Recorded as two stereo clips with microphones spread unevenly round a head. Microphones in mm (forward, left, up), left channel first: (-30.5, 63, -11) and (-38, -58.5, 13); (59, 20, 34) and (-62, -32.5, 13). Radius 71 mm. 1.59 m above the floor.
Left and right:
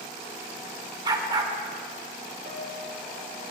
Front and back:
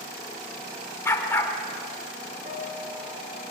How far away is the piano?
About 5.5 m.